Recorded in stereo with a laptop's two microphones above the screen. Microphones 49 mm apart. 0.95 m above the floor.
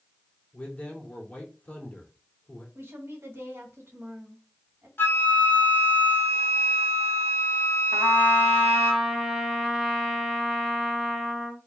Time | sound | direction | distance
0.5 | a man speaking | 25° left (ahead or behind) | 2 m
2.8 | a woman speaking | 55° right (ahead or behind) | 1.5 m
5.0 | a flute | 45° left (ahead or behind) | 1.1 m
7.9 | a trumpet | 10° right (ahead or behind) | 1.0 m